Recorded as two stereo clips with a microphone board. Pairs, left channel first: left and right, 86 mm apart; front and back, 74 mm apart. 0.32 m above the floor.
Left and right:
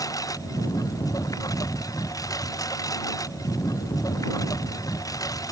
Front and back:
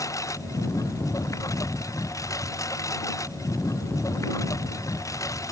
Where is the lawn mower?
45° left.